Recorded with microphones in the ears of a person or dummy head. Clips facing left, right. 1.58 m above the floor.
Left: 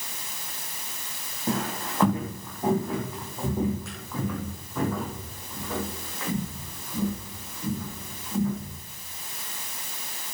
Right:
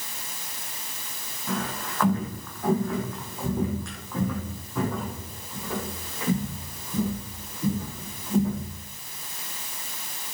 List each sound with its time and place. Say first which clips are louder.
1.5 s footsteps: left 2 dB; 25° left (ahead or behind), 4 m; by 8.8 s 20° right (ahead or behind), 8 m